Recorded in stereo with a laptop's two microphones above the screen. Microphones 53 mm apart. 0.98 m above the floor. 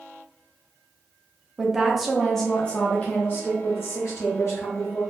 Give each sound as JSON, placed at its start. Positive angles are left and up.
{"t": 1.6, "sound": "a woman speaking", "side_deg": -15, "distance_m": 1.0}